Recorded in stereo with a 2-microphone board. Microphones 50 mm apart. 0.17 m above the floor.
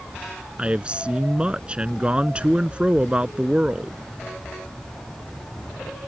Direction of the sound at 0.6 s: 20° right (ahead or behind).